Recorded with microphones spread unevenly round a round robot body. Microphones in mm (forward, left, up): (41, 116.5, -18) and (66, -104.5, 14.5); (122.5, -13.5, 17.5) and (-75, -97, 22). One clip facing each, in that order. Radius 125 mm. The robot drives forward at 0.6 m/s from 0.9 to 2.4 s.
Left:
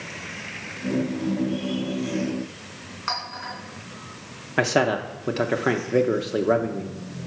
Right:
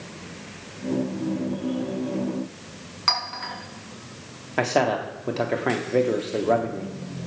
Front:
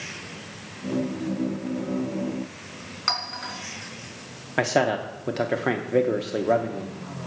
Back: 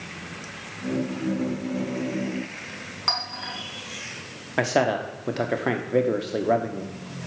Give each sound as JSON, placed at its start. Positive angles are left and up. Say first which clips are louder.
{"t": 3.1, "sound": "a clink", "louder": "right 3 dB, back 1 dB", "azimuth_deg": -45, "distance_m": 3.5}
{"t": 4.6, "sound": "a man speaking", "louder": "left 1 dB, even", "azimuth_deg": 110, "distance_m": 0.6}